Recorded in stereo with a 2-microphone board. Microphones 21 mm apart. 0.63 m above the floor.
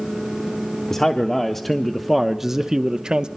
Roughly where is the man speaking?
Left.